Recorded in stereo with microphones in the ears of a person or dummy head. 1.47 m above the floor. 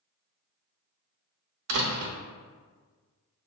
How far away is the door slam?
About 0.6 m.